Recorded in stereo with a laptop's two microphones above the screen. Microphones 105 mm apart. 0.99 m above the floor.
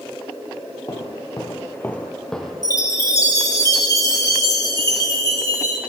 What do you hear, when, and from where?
0.9 s footsteps: 40° left (ahead or behind), 1.3 m; by 2.5 s 5° left (ahead or behind), 2.0 m
2.6 s a chime: 30° left (ahead or behind), 1.2 m